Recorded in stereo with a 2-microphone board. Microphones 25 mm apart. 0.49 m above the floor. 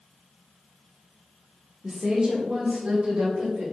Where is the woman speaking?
35° right (ahead or behind), 0.9 m; by 3.6 s 45° right (ahead or behind), 2.5 m.